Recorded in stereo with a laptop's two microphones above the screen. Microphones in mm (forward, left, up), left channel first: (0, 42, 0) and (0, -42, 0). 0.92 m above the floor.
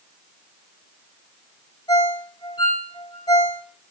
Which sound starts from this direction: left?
A ringtone, at 1.9 s.